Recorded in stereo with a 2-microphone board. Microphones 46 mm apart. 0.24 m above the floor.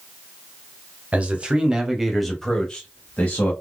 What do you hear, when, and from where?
1.1 s a man speaking: 30° right (ahead or behind), 1.1 m; by 3.5 s 35° left (ahead or behind), 1.2 m